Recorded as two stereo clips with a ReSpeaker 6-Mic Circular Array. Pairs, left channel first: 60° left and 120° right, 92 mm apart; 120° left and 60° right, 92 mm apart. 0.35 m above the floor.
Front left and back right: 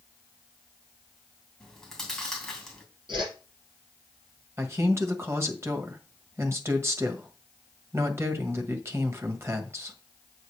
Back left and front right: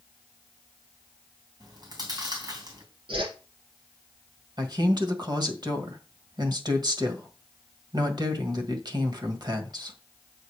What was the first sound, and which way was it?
Chewing, 25° right.